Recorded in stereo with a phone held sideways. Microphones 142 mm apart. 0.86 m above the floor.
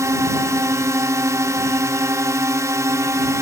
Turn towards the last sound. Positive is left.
turn(degrees=-25)  # may be behind; listen again after turning